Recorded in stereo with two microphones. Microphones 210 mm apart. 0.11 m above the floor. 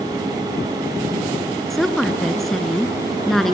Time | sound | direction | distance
1.7 | a woman speaking | centre (ahead or behind) | 1.1 m